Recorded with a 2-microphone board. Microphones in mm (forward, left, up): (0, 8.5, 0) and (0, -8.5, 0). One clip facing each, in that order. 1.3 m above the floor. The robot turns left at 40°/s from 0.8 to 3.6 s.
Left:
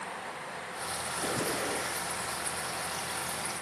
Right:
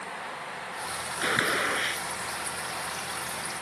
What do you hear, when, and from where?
1.2 s a gunshot: 90° right; by 2.0 s 125° right